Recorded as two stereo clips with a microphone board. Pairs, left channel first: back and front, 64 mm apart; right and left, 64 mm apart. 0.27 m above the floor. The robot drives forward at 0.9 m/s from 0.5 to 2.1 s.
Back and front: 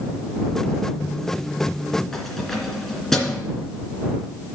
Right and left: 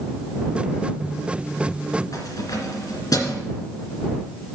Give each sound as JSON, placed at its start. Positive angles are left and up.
{"t": 2.1, "sound": "keys jangling", "azimuth_deg": -95, "distance_m": 2.5}